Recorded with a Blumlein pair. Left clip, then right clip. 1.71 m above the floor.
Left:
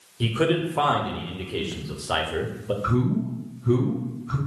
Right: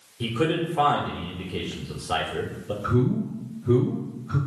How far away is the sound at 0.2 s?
About 0.8 m.